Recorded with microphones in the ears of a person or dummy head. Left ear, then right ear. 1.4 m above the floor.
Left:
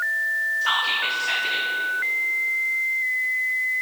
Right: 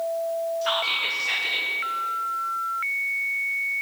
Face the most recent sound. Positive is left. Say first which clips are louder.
# even
turn(degrees=0)  # may be behind; listen again after turning